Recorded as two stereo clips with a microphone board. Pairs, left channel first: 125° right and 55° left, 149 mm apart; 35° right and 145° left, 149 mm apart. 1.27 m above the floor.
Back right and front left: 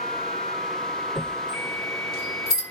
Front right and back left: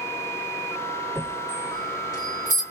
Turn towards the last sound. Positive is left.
turn(degrees=-100)